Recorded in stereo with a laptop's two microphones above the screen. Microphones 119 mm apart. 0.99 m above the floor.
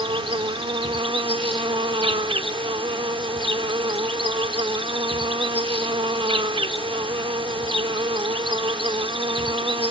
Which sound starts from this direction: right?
An insect, at 0.0 s.